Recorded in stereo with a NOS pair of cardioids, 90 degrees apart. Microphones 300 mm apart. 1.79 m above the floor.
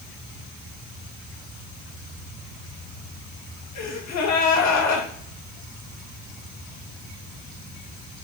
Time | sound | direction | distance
3.8 | a gasp | 60° left | 2 m